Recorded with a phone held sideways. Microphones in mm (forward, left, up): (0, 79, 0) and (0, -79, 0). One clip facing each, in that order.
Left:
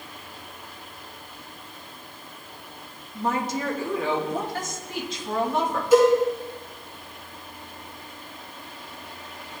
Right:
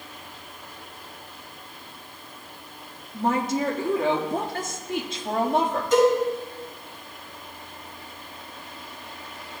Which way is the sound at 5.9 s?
10° left (ahead or behind).